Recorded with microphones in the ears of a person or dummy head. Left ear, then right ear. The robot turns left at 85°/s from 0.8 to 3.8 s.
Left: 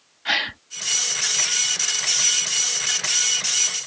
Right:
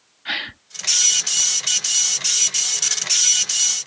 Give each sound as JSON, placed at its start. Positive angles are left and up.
{"t": 0.2, "sound": "a gasp", "side_deg": 20}